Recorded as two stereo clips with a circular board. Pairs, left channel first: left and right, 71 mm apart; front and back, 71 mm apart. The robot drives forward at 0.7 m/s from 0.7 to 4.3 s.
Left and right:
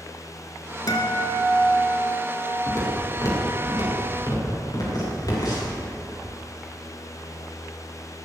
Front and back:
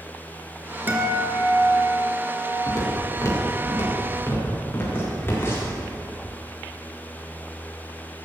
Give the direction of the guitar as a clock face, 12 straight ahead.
8 o'clock.